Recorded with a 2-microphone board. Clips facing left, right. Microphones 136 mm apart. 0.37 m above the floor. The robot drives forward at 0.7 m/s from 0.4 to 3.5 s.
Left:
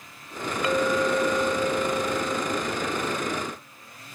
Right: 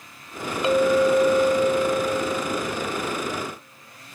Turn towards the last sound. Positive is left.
turn(degrees=-10)  # may be behind; listen again after turning